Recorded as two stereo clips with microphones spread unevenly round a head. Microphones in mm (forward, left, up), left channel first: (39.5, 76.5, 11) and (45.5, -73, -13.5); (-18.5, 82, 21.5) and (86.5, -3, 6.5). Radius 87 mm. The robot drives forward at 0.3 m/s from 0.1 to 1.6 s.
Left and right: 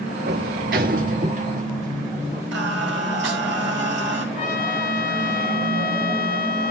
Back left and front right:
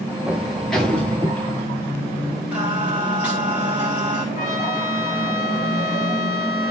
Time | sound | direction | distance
0.3 | a sliding door | 125° right | 1.0 m
2.5 | singing | 120° right | 2 m
4.3 | a trumpet | 125° left | 6.5 m